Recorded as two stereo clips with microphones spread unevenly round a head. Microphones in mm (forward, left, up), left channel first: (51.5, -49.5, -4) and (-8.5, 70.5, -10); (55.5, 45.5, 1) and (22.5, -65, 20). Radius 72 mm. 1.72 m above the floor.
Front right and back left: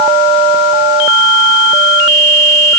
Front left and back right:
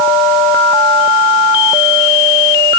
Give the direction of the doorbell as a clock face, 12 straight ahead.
No doorbell in this recording.